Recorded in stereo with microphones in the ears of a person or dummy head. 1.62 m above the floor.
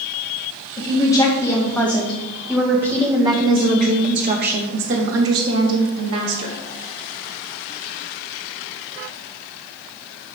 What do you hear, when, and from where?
0.8 s a woman speaking: 20° left (ahead or behind), 3 m; by 6.6 s 80° right, 3 m